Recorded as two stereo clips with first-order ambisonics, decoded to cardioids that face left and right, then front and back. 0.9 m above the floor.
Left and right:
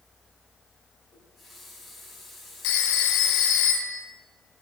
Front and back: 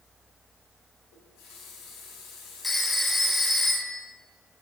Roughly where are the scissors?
No scissors in this recording.